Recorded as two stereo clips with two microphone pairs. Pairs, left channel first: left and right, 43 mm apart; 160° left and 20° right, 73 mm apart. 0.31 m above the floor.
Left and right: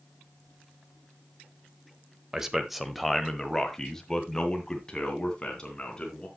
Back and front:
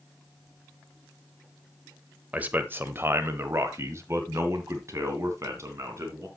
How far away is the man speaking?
About 1.0 m.